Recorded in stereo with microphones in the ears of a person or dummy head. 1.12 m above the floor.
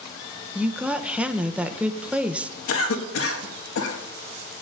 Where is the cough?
70° left (ahead or behind), 1.7 m.